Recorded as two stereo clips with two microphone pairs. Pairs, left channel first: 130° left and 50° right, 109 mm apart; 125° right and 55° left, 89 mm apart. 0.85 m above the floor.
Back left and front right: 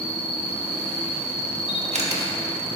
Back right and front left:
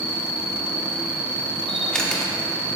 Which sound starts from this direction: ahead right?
A camera shutter, at 1.7 s.